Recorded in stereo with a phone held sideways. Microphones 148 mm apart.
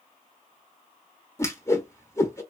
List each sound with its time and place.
1.4 s a whoosh: 20° left (ahead or behind), 0.9 m